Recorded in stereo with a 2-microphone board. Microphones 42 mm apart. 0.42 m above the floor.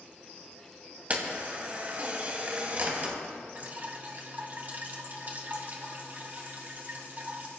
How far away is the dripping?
About 2 m.